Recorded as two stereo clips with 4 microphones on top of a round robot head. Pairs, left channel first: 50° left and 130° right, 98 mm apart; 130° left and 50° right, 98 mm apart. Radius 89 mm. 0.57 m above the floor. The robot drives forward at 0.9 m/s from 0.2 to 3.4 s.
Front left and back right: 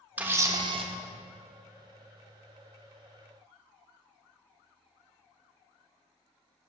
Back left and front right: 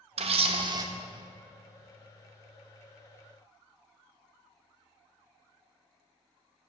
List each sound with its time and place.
0.2 s a camera shutter: 55° right, 0.8 m; by 0.9 s 105° right, 0.7 m